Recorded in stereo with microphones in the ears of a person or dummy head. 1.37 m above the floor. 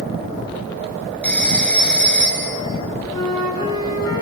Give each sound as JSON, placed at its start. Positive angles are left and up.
{"t": 1.2, "sound": "a phone ringing", "side_deg": 5, "distance_m": 7.0}
{"t": 3.1, "sound": "a flute", "side_deg": -25, "distance_m": 8.5}